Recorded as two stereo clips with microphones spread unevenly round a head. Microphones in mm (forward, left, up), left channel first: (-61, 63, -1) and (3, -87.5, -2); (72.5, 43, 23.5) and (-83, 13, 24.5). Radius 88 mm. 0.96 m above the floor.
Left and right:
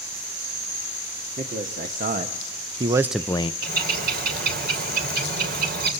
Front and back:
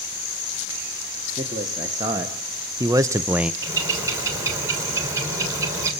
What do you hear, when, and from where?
1.4 s a man speaking: 100° right, 2.5 m; by 3.5 s 110° left, 0.7 m
3.6 s a bird: 95° right, 3.5 m